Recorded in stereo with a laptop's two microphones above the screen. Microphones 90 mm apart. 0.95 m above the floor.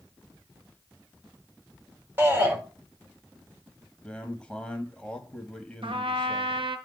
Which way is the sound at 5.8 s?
70° right (ahead or behind).